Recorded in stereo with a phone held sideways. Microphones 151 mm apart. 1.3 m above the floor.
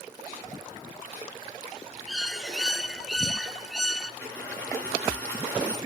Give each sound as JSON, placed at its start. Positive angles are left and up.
{"t": 2.1, "sound": "a bird", "side_deg": 0, "distance_m": 0.7}
{"t": 4.2, "sound": "a dropped coin", "side_deg": 10, "distance_m": 4.5}